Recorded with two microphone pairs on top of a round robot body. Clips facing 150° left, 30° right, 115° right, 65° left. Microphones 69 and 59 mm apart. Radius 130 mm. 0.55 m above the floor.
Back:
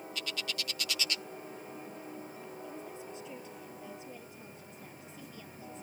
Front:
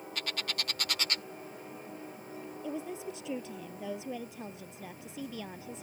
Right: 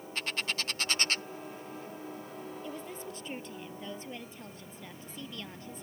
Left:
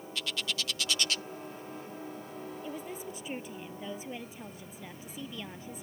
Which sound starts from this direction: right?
A bird, at 0.1 s.